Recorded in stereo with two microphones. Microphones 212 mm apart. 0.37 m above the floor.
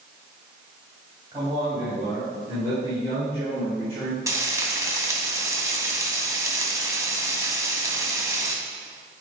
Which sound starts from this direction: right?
A man speaking, at 1.3 s.